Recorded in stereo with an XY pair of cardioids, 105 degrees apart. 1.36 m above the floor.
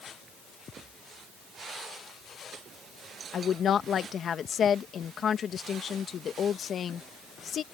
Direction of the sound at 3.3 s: 50° left.